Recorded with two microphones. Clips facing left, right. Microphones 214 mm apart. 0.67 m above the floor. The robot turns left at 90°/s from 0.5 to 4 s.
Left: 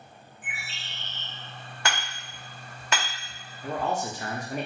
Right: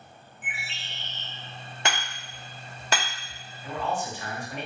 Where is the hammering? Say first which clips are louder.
Right 1 dB; 20° right (ahead or behind), 1.1 m; by 3.1 s 25° right (ahead or behind), 1.1 m.